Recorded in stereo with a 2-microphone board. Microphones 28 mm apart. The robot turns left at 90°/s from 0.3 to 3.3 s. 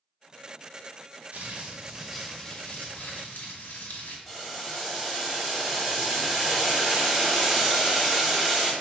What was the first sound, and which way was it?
Crumpling, 105° right.